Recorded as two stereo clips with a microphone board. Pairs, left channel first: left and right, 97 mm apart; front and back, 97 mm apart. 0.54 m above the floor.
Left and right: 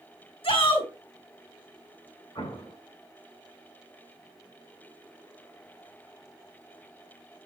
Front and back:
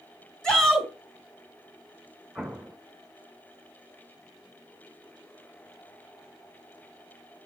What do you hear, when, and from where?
0.4 s a shout: 80° left, 3.5 m
2.4 s an explosion: 85° left, 2.5 m